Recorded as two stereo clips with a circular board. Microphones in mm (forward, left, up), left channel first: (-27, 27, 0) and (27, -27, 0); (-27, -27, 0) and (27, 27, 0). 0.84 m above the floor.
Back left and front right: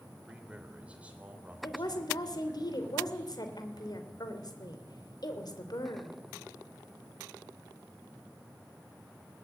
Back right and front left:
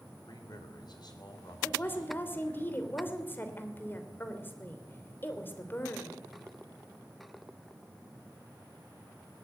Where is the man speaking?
125° right, 3.5 m; by 2.6 s 105° right, 4.5 m.